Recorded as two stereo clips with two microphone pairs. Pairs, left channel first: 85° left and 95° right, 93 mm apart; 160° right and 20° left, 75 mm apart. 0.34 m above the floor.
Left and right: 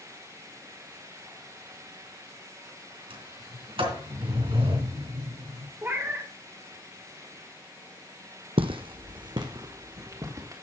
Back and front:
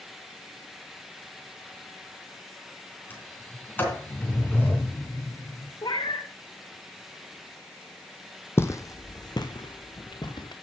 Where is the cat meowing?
165° right, 1.4 m.